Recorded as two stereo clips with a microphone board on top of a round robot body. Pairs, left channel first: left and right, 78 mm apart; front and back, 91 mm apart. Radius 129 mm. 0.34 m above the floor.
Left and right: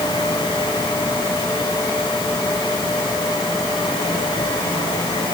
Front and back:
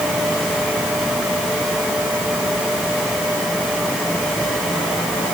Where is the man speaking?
No man speaking in this recording.